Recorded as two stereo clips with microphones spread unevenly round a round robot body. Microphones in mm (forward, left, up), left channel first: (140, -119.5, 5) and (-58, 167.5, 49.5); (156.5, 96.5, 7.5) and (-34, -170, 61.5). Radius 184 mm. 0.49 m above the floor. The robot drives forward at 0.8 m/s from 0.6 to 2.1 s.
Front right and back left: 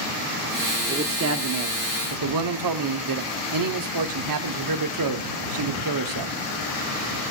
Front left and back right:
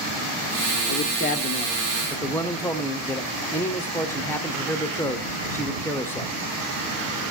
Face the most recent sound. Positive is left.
turn(degrees=125)